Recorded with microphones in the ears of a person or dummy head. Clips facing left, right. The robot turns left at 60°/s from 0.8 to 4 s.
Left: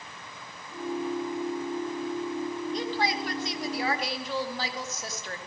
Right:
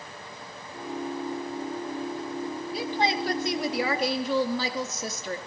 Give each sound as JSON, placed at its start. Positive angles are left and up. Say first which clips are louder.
{"t": 2.7, "sound": "a woman speaking", "louder": "right 4 dB", "azimuth_deg": -5, "distance_m": 2.0}